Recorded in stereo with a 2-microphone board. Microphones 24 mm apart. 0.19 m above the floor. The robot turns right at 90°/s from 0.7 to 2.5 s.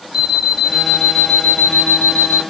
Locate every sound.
0.1 s an alarm clock: 5° right, 1.8 m; by 2.4 s 150° left, 1.8 m